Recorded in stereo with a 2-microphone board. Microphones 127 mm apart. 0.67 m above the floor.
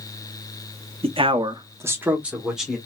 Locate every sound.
1.0 s a man speaking: 50° right (ahead or behind), 0.7 m; by 2.8 s centre (ahead or behind), 1.5 m